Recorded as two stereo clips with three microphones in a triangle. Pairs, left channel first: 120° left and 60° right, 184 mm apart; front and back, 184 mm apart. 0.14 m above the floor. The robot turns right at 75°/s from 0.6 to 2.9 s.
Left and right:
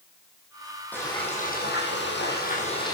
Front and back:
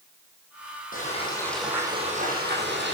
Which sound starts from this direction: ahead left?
Frying, at 0.9 s.